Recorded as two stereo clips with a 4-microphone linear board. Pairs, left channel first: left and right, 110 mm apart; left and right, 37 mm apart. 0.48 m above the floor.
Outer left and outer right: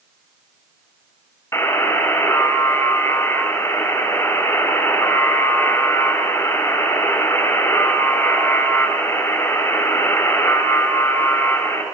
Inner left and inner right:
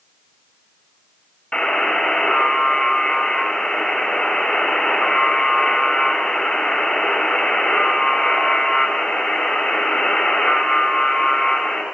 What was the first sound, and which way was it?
A buzzer, 25° left (ahead or behind).